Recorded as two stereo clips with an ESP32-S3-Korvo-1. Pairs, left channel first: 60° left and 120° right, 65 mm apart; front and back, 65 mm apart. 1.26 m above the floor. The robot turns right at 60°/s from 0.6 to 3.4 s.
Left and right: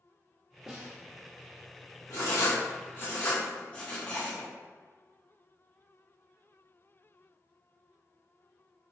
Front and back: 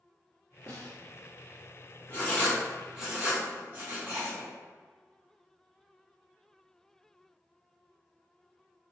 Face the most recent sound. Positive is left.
turn(degrees=125)